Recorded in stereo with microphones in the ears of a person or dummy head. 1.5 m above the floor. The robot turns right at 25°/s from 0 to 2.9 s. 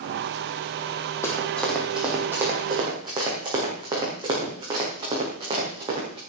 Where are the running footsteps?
10° left (ahead or behind), 3.5 m; by 6.2 s 30° right (ahead or behind), 7.5 m.